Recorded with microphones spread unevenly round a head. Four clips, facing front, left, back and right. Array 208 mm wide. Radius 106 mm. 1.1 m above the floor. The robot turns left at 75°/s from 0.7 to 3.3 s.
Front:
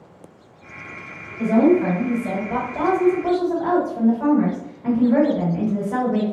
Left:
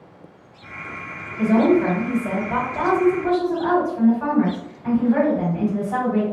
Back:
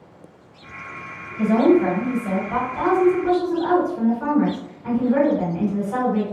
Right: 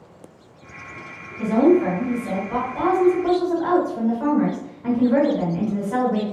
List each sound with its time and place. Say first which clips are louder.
1.4 s a woman speaking: even, even; 115° left, 1.4 m; by 6.2 s 30° right, 1.4 m